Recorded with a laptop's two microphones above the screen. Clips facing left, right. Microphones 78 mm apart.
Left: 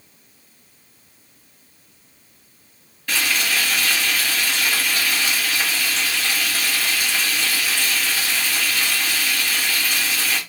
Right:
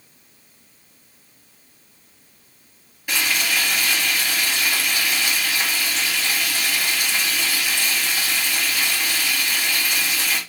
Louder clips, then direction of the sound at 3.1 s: Left 1 dB; 15° right (ahead or behind).